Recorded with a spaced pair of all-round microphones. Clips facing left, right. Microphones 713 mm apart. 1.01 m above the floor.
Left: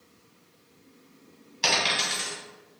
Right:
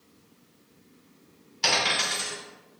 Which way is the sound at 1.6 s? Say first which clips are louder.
Even; 15° left (ahead or behind).